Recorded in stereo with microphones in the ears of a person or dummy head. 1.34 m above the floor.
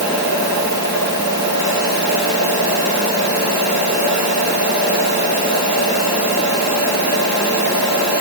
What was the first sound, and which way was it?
Only background noise.